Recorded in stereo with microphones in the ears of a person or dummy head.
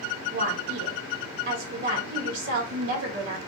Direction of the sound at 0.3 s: 60° right (ahead or behind).